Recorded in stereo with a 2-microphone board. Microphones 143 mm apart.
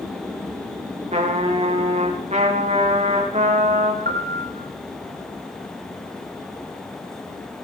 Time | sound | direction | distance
1.1 | a trumpet | 50° right (ahead or behind) | 4.5 m
4.0 | a piano | 85° right | 3.5 m